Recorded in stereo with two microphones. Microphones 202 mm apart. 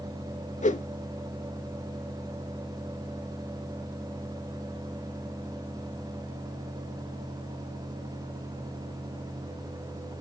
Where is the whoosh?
40° left (ahead or behind), 0.5 m.